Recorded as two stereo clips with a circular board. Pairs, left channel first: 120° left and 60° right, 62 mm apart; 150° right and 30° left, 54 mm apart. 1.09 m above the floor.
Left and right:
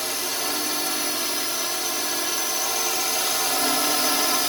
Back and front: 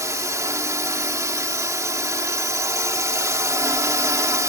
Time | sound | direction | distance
0.0 | a drone | 30° left | ?